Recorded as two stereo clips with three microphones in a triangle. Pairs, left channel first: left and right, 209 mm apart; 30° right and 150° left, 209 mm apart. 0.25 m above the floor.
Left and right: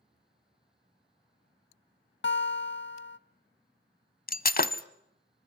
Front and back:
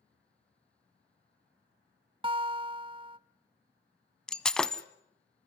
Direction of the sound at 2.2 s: 90° left.